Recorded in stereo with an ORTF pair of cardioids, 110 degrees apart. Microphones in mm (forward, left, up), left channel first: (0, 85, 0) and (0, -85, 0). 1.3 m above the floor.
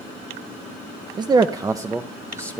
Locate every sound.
1.2 s a man speaking: 25° right, 0.6 m; by 2.6 s 15° right, 1.3 m